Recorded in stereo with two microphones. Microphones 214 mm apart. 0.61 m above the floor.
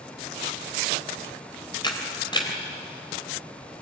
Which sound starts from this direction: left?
A camera shutter, at 1.8 s.